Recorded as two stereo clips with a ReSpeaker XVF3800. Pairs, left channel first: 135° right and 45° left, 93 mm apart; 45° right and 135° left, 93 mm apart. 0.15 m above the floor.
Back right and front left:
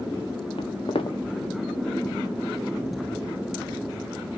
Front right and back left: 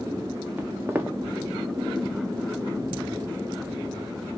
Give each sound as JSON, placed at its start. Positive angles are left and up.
{"t": 0.6, "sound": "footsteps", "azimuth_deg": -160, "distance_m": 0.9}